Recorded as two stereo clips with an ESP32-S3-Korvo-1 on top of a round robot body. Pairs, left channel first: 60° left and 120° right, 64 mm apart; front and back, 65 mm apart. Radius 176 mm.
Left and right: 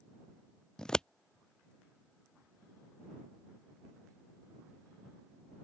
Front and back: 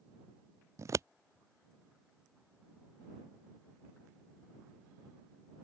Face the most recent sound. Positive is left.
turn(degrees=140)